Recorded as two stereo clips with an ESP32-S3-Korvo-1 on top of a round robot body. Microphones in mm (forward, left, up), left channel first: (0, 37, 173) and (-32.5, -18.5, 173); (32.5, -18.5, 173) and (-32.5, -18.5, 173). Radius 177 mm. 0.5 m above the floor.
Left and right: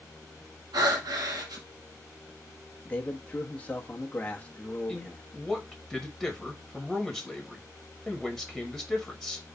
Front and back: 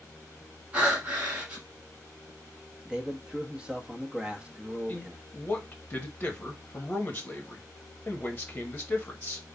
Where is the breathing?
105° right, 1.4 m.